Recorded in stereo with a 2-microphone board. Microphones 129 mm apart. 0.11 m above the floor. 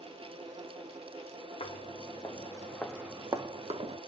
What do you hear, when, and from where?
1.6 s footsteps: 55° left (ahead or behind), 1.0 m; by 4.0 s 60° right (ahead or behind), 0.8 m